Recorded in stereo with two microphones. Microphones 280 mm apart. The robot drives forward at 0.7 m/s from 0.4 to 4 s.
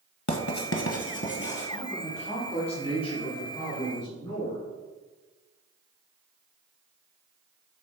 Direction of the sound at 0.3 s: 80° left.